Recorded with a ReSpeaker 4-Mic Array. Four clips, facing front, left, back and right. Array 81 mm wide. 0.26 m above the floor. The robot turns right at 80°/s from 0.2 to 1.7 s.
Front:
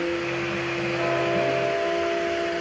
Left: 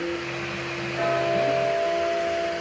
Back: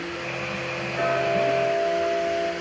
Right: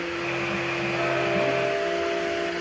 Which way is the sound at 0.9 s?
155° left.